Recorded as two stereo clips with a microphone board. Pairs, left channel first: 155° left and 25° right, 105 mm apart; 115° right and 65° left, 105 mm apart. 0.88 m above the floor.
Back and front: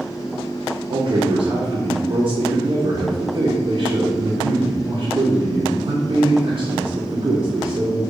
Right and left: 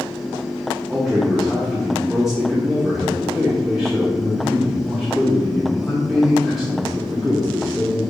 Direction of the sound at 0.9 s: 20° right.